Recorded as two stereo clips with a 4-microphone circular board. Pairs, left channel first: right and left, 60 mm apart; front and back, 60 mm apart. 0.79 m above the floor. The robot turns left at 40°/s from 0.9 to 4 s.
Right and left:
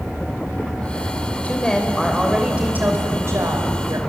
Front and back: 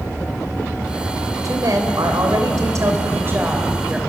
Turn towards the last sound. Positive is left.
turn(degrees=100)